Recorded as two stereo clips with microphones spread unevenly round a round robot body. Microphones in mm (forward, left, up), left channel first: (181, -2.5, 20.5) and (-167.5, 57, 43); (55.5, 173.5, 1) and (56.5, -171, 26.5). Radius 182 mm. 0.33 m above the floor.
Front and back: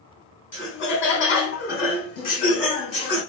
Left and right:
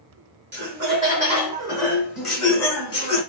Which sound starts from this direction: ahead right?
Laughter, at 0.5 s.